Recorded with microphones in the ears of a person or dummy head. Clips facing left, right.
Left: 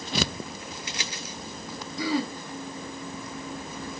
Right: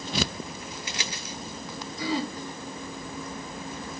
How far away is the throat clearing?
About 2.5 m.